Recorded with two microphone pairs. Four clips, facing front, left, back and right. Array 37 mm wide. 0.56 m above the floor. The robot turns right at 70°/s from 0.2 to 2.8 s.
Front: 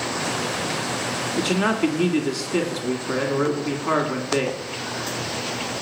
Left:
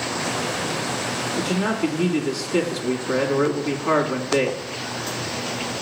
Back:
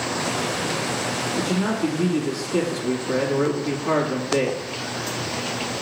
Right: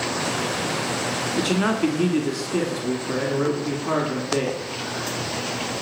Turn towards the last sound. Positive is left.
turn(degrees=60)